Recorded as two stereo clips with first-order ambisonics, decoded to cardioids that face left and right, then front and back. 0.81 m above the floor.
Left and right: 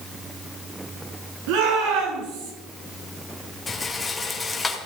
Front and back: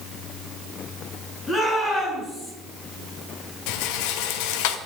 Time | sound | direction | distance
1.5 | a shout | 85° right | 7.5 m
3.7 | a rattle | 15° left | 1.6 m